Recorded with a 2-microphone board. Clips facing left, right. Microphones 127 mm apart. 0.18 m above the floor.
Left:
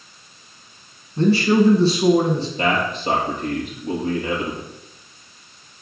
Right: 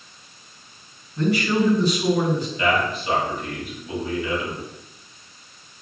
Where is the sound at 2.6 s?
40° left (ahead or behind), 4 m.